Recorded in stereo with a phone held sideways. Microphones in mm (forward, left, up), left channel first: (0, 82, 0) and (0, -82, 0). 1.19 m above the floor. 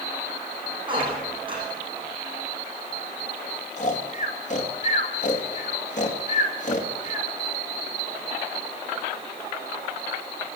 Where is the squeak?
30° right (ahead or behind), 8.5 m.